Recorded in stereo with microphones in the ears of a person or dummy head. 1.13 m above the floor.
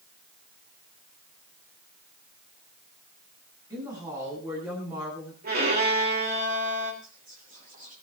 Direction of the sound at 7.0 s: 45° right (ahead or behind).